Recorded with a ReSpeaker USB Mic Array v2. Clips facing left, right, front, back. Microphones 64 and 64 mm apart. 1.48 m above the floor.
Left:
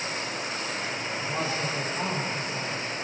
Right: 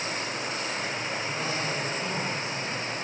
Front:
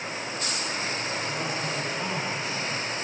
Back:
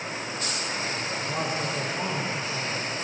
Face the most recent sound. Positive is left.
turn(degrees=135)